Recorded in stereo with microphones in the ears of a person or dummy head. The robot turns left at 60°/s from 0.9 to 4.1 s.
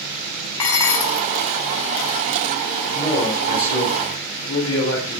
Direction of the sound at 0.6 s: 10° left (ahead or behind).